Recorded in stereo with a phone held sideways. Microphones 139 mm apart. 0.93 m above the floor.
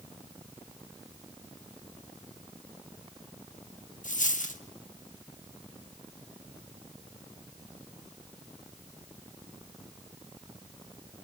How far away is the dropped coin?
About 0.9 m.